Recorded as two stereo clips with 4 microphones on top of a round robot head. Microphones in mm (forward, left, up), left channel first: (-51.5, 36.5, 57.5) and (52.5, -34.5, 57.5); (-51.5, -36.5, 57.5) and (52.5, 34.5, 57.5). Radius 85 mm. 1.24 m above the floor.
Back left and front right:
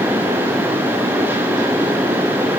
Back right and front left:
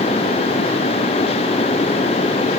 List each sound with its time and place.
Only background noise.